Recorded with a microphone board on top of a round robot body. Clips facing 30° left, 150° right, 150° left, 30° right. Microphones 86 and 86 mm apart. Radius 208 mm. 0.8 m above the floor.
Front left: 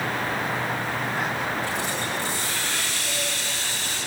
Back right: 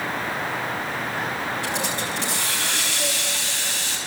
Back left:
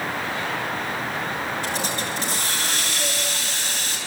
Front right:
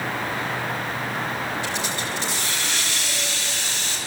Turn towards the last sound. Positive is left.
turn(degrees=-165)